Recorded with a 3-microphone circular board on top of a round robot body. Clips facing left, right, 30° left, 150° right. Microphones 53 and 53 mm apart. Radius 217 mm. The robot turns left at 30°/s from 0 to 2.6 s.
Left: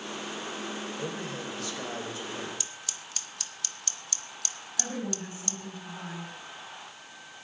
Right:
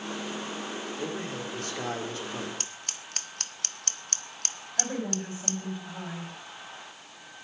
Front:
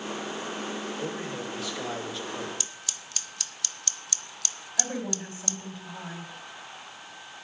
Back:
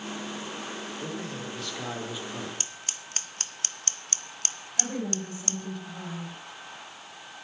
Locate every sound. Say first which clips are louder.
1.0 s a man speaking: right 1 dB, front 2 dB; 35° right, 2.5 m; by 2.5 s 80° right, 2.5 m
2.6 s scissors: right 1 dB, back 1 dB; 110° right, 0.9 m
4.8 s a woman speaking: right 3 dB, back 1 dB; 50° right, 5 m